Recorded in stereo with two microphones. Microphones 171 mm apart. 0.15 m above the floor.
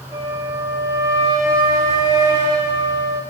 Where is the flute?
20° right (ahead or behind), 3 m.